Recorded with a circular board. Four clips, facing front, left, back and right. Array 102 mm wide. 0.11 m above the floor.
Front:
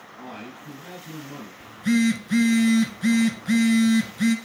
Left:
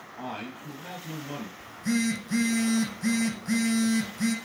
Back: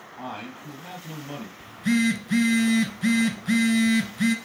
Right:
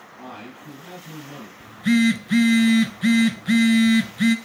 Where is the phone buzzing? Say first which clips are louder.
Right 9 dB, front 2 dB; 90° right, 1.1 m.